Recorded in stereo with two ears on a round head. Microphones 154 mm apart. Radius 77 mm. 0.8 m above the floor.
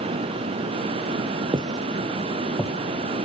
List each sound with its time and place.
1.5 s footsteps: 30° right (ahead or behind), 0.9 m; by 2.7 s 5° right (ahead or behind), 1.2 m